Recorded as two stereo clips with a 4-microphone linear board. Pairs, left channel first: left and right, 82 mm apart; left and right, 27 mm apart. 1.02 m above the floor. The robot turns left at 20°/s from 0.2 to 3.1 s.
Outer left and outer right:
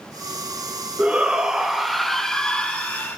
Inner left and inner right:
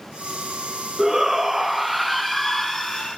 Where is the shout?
160° right, 1.7 m; by 3.2 s 155° left, 1.7 m.